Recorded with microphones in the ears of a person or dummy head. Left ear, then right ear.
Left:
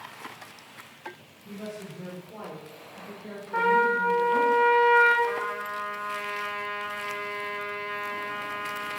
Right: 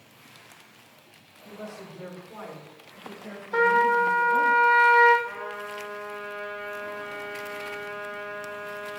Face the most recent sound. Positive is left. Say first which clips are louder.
# left 5 dB
turn(degrees=70)  # may be behind; listen again after turning